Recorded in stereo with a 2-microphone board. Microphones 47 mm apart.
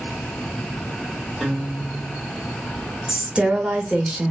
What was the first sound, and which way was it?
A guitar, 5° left (ahead or behind).